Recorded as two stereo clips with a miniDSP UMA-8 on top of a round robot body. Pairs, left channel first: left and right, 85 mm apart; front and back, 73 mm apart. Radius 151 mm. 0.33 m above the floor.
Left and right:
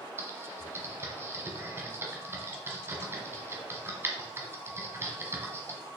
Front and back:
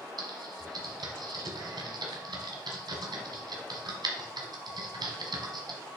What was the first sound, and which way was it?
Typing on a keyboard, 155° right.